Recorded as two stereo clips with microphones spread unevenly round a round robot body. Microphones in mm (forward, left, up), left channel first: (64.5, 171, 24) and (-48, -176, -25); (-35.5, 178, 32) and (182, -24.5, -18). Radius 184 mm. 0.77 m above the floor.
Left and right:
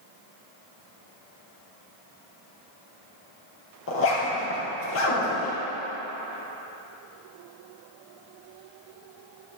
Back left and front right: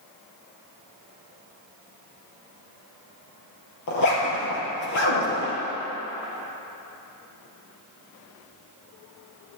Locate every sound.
3.9 s a zipper: 125° left, 3 m